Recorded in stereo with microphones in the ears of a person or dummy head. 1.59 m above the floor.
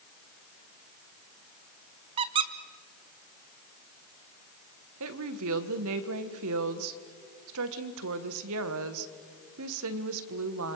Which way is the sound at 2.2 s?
30° right (ahead or behind).